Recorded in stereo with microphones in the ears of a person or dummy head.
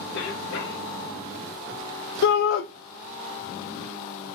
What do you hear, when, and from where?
0.1 s a cough: 65° left (ahead or behind), 1.0 m
2.2 s a shout: 70° left (ahead or behind), 0.5 m